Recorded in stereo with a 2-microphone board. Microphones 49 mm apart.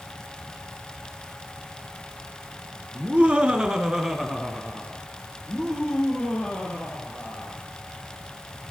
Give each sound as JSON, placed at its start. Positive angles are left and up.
{"t": 3.0, "sound": "laughter", "side_deg": -30, "distance_m": 2.0}